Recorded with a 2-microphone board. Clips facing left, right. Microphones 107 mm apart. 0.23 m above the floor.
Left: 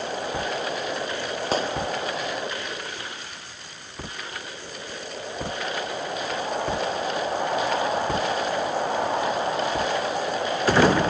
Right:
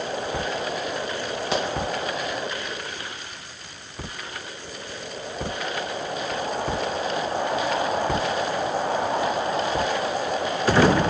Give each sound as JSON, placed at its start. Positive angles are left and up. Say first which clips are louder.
{"t": 1.5, "sound": "a gunshot", "louder": "left 1 dB", "side_deg": 40, "distance_m": 2.5}